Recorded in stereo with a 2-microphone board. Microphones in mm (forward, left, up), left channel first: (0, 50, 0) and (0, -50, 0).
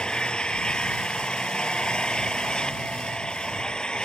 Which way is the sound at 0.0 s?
10° left (ahead or behind).